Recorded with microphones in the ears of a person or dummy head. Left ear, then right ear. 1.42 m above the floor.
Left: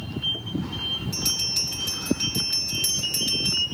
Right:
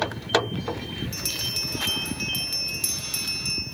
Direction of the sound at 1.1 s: 10° right (ahead or behind).